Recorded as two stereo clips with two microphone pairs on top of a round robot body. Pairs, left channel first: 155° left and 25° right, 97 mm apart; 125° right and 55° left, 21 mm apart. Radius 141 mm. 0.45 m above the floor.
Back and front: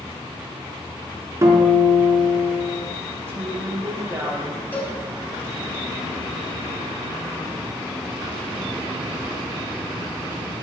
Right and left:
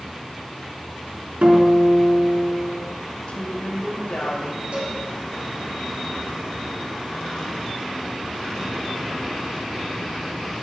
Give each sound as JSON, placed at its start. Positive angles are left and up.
{"t": 1.4, "sound": "a guitar", "azimuth_deg": 30, "distance_m": 4.5}
{"t": 3.3, "sound": "a woman speaking", "azimuth_deg": -90, "distance_m": 3.5}
{"t": 4.7, "sound": "a cowbell", "azimuth_deg": 80, "distance_m": 5.5}